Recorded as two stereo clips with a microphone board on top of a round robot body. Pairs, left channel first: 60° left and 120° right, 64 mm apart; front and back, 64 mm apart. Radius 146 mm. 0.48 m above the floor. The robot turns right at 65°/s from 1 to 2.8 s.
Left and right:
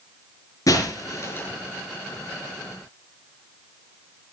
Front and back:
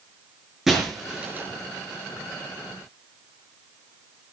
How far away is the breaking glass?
About 5.5 m.